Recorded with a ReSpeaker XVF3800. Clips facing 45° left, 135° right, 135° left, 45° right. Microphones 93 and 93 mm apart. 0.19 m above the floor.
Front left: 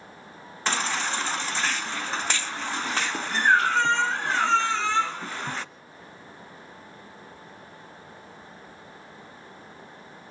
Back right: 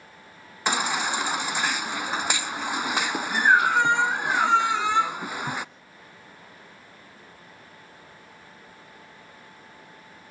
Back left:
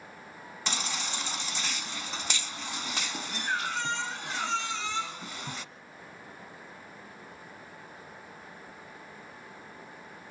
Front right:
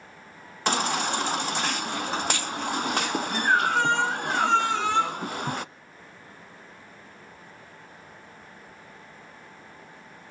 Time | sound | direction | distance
0.7 | a baby crying | 60° right | 0.5 m